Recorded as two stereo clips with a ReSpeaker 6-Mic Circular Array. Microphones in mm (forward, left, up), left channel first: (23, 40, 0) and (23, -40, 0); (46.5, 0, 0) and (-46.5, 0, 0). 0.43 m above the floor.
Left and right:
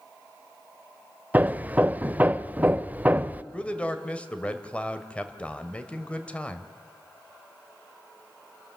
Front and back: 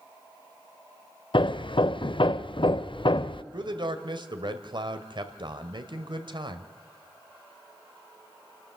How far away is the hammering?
About 0.5 m.